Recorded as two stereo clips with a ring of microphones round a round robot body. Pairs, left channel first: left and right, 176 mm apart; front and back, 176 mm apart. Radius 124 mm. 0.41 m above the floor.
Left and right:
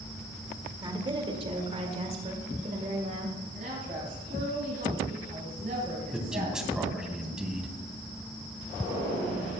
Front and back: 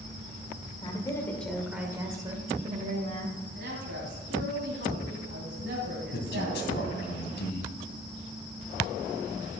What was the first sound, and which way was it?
A woman speaking, 45° right.